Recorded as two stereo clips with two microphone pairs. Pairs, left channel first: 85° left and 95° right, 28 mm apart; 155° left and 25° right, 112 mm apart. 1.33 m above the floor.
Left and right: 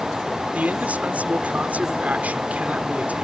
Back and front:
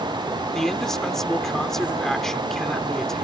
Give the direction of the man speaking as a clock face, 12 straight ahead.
4 o'clock.